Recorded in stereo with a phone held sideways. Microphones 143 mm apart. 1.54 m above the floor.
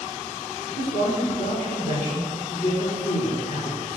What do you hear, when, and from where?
0.8 s a man speaking: 75° left (ahead or behind), 6 m